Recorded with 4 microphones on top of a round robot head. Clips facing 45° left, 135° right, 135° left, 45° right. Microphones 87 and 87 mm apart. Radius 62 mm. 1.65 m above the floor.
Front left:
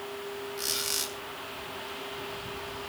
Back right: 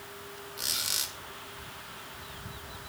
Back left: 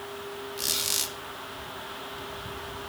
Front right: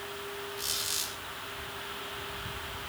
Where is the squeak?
140° left, 2 m.